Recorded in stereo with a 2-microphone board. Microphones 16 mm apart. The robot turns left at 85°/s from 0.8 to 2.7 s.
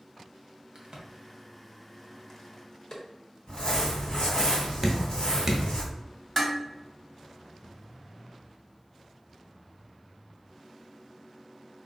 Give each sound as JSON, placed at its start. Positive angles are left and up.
{"t": 0.8, "sound": "a crack", "side_deg": -55, "distance_m": 0.8}
{"t": 3.5, "sound": "crumpling", "side_deg": 55, "distance_m": 1.6}
{"t": 4.8, "sound": "dripping", "side_deg": -25, "distance_m": 0.7}
{"t": 6.4, "sound": "dishes clattering", "side_deg": 15, "distance_m": 0.9}